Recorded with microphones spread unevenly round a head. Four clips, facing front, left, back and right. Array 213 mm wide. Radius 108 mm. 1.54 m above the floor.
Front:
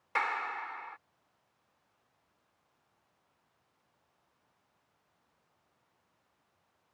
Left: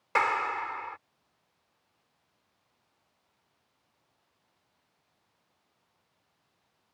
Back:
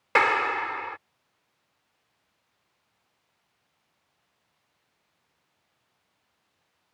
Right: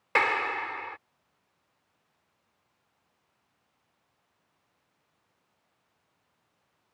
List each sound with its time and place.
0.1 s a clap: 170° right